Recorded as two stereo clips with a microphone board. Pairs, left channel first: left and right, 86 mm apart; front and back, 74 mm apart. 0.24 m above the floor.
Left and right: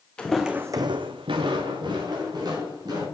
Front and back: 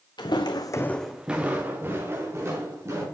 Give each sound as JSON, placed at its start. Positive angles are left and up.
{"t": 0.2, "sound": "footsteps", "azimuth_deg": 10, "distance_m": 1.1}